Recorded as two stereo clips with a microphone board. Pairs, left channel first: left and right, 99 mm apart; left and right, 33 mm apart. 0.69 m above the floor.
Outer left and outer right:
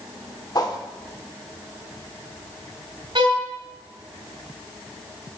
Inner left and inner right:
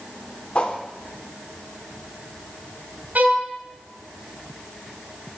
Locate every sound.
0.6 s a whoosh: 40° left (ahead or behind), 0.9 m
3.1 s a violin: 60° right (ahead or behind), 1.7 m